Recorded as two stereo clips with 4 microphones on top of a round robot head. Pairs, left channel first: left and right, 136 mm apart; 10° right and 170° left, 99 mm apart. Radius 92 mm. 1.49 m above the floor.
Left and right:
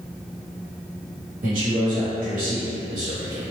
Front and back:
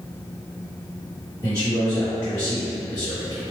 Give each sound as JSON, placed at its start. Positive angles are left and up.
{"t": 1.4, "sound": "a man speaking", "azimuth_deg": -70, "distance_m": 1.5}